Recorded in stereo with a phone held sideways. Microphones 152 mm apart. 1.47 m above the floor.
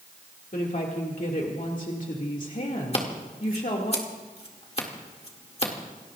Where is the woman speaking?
65° left (ahead or behind), 2 m.